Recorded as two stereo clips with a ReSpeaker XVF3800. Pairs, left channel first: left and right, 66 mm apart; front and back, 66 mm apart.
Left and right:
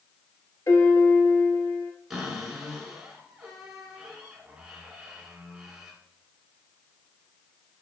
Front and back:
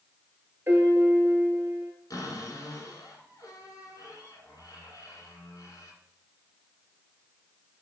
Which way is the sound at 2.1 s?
5° right.